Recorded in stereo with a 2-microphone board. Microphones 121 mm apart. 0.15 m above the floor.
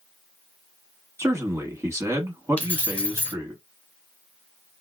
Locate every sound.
1.2 s a man speaking: 25° right (ahead or behind), 1.1 m
2.6 s keys jangling: 10° left (ahead or behind), 1.3 m